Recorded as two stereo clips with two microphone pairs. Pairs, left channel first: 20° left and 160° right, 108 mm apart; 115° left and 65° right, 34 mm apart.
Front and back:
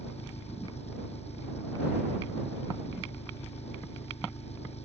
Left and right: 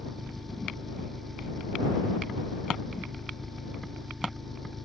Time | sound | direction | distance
0.0 | an engine running | 30° left | ?